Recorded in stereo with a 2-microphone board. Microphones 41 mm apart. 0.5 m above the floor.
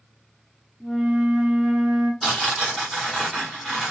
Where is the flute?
Centre (ahead or behind), 1.2 m.